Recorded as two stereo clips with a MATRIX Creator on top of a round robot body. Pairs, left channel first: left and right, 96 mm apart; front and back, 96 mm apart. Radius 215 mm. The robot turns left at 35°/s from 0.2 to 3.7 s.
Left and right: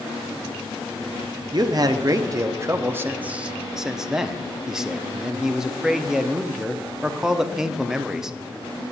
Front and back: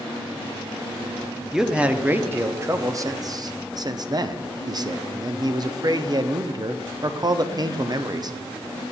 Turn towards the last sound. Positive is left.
turn(degrees=-175)